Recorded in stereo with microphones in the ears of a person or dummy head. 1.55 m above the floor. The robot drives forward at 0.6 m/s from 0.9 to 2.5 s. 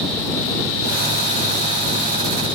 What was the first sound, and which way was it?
Only background noise.